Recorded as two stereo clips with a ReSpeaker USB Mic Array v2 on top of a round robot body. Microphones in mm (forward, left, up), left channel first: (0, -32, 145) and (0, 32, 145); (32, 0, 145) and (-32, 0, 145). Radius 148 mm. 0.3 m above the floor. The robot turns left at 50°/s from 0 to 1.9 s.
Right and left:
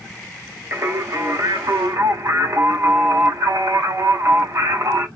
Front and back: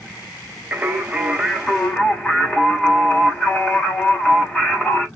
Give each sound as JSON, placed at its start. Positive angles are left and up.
{"t": 0.7, "sound": "singing", "azimuth_deg": 130, "distance_m": 1.9}